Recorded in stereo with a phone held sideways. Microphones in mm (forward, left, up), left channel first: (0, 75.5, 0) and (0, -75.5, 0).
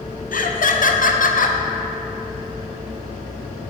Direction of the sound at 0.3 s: 65° left (ahead or behind).